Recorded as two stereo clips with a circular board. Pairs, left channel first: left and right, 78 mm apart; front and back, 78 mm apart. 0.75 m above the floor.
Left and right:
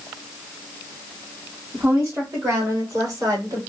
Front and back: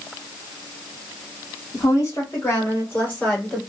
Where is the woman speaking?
40° right, 2 m; by 3.6 s 75° right, 1.9 m.